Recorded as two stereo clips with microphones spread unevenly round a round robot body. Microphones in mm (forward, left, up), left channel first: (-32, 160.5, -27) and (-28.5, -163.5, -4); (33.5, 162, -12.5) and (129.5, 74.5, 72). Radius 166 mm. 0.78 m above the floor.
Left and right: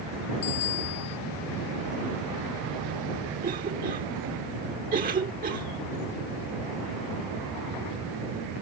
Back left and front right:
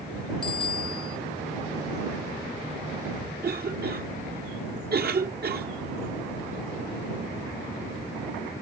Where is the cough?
20° right.